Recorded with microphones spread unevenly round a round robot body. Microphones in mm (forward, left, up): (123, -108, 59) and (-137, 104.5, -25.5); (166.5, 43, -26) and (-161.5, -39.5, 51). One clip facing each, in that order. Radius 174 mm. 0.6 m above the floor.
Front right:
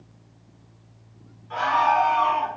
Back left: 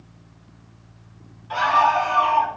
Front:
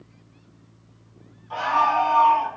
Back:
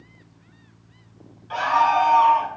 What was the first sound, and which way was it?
A scream, 145° left.